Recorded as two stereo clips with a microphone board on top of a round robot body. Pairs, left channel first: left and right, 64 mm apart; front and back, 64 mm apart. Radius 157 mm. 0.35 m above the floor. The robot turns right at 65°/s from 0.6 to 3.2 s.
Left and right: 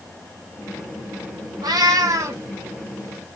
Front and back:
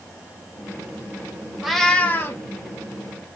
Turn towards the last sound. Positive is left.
turn(degrees=10)